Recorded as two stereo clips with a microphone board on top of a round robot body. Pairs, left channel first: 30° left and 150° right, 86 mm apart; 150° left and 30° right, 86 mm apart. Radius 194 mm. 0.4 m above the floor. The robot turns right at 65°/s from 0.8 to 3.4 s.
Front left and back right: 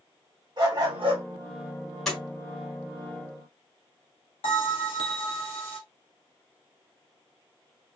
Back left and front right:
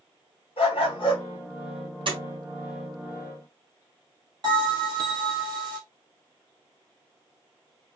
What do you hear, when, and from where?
0.6 s a dog barking: 170° left, 2.0 m; by 1.2 s 165° right, 2.0 m
2.1 s a door slam: 55° right, 2 m; by 2.2 s 50° right, 2 m
4.4 s a bell: 10° left, 1.9 m